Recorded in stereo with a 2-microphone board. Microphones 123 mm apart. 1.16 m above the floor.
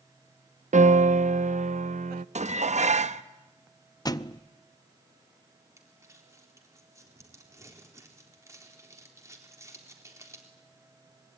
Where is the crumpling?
25° right (ahead or behind), 4 m.